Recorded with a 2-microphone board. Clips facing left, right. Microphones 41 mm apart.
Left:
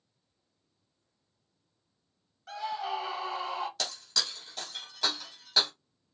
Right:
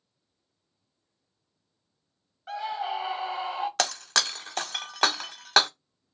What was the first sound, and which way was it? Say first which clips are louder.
A scream: right 3 dB; 20° right (ahead or behind).